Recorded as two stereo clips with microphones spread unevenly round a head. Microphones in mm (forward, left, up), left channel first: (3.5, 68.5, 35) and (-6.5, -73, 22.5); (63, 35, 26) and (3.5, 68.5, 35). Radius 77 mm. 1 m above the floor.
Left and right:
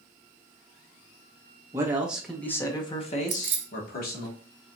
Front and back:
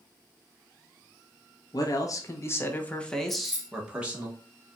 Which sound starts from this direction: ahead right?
A man speaking, at 1.7 s.